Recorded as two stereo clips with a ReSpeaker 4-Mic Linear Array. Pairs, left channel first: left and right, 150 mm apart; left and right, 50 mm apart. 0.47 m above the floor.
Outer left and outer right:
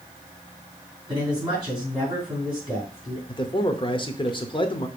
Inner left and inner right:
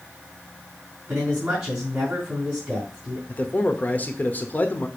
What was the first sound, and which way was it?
A man speaking, 30° right (ahead or behind).